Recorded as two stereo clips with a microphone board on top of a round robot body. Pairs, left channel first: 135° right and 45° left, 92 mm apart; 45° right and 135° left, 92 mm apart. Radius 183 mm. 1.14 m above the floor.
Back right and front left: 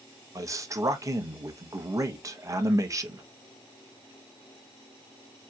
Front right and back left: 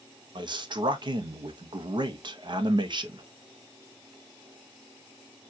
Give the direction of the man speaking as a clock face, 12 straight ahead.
9 o'clock.